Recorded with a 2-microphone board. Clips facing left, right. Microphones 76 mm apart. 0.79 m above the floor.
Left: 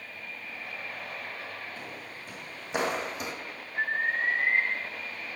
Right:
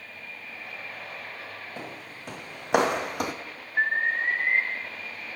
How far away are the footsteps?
About 3 m.